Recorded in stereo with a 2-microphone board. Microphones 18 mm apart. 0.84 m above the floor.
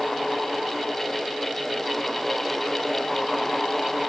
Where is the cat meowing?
I don't hear a cat meowing.